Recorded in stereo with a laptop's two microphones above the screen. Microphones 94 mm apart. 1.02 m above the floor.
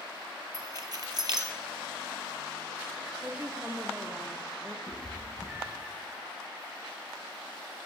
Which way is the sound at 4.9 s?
15° right (ahead or behind).